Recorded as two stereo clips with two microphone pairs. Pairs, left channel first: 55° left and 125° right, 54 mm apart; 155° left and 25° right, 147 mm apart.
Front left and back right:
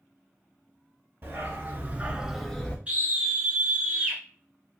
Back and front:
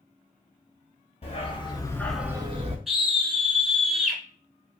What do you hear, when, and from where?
1.2 s a dog barking: 165° right, 1.1 m; by 2.8 s 15° right, 0.7 m
2.9 s a scream: 110° right, 1.3 m